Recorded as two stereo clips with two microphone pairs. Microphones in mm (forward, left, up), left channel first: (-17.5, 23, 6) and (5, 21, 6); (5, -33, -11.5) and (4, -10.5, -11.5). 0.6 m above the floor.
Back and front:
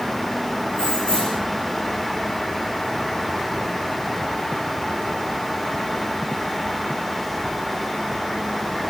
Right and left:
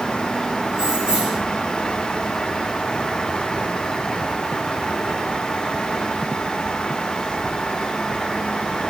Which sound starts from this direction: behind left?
Keys jangling, at 0.7 s.